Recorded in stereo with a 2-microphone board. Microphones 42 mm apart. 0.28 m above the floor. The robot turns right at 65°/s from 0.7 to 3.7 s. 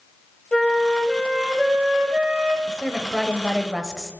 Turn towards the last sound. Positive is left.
turn(degrees=0)  # may be behind; listen again after turning